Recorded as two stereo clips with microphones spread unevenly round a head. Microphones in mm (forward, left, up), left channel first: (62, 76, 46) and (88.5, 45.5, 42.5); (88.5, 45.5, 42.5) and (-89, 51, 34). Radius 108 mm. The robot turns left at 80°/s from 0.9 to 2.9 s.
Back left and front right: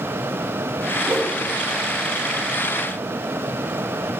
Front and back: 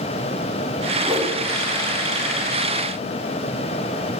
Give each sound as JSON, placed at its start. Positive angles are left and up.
{"t": 1.0, "sound": "a whoosh", "azimuth_deg": -110, "distance_m": 0.9}